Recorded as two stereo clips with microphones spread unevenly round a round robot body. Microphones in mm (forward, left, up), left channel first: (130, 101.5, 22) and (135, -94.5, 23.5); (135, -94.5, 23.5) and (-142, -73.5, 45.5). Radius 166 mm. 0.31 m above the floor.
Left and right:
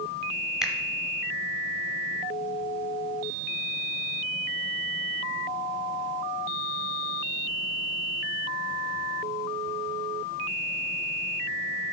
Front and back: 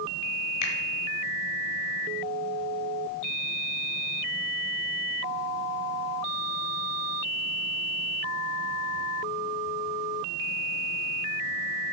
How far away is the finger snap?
About 1.5 m.